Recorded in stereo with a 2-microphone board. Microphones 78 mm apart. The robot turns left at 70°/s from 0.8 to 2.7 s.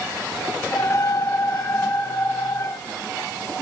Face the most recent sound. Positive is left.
No sound to turn to.